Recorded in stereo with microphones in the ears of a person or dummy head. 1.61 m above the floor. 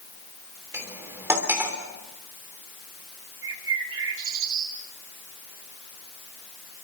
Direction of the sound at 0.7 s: 15° right (ahead or behind).